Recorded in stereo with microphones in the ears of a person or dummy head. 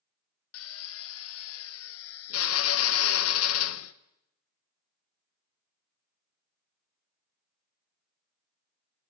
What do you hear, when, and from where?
0.5 s a drill: 80° left, 0.9 m